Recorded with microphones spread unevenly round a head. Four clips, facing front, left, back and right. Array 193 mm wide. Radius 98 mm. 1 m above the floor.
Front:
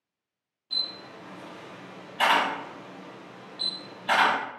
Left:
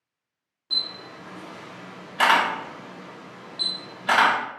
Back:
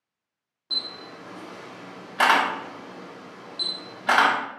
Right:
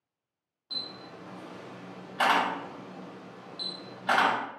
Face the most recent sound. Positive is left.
turn(degrees=160)